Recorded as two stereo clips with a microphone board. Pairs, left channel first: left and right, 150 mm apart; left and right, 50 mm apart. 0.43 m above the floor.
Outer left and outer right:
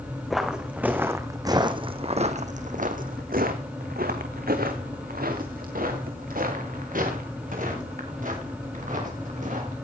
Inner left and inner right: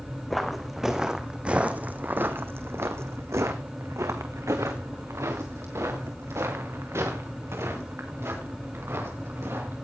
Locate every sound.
0.3 s footsteps: centre (ahead or behind), 2 m; by 9.8 s 60° right (ahead or behind), 6.5 m